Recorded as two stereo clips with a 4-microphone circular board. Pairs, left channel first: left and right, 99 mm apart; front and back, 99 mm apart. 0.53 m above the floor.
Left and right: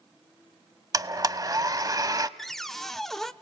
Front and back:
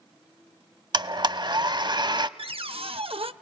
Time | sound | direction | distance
0.9 | a blender | 140° right | 0.7 m
2.4 | a cupboard door | 175° left | 0.8 m